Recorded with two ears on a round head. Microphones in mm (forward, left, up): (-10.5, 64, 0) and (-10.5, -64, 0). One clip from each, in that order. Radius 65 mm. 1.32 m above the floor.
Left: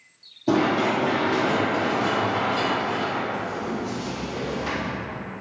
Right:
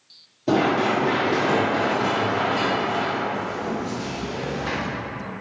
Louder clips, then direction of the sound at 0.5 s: Right 1 dB; 5° right (ahead or behind).